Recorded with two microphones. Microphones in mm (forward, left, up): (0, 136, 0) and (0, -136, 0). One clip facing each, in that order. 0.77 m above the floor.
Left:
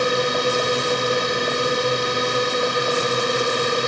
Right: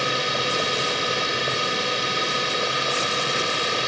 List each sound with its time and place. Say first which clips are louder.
0.0 s a drone: left 7 dB; 55° left (ahead or behind)